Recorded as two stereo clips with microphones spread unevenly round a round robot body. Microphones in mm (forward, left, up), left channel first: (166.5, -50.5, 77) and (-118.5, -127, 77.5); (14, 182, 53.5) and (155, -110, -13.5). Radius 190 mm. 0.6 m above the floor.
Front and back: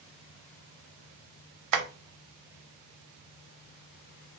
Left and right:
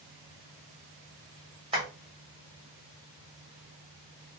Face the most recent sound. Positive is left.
turn(degrees=-135)